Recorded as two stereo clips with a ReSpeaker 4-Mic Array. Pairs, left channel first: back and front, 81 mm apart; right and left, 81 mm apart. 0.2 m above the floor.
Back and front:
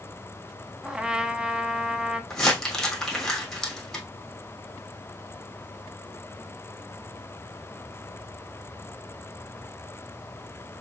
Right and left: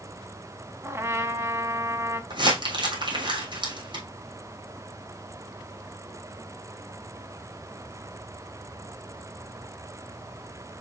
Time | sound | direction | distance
0.8 | a trumpet | 70° left | 0.8 m
2.3 | crumpling | 95° left | 3 m